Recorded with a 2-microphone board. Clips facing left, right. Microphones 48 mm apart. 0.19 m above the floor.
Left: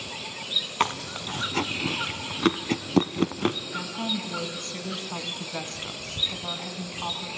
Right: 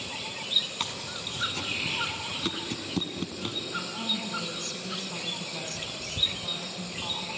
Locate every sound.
0.8 s chewing: 50° left (ahead or behind), 0.6 m
3.7 s a woman speaking: 30° left (ahead or behind), 1.7 m